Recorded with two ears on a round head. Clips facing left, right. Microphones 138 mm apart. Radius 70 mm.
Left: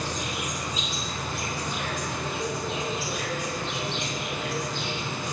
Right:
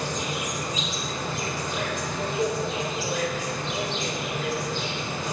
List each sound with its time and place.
0.0 s an insect: 65° right (ahead or behind), 3.5 m